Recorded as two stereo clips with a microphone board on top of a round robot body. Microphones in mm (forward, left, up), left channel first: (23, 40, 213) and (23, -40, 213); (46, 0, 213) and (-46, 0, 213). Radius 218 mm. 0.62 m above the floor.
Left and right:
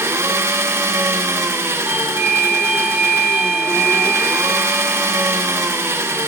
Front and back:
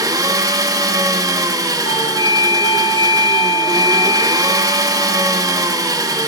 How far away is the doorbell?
About 2 m.